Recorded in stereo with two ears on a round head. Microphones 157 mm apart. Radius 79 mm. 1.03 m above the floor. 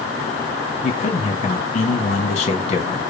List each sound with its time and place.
0.8 s a man speaking: 40° left (ahead or behind), 1.3 m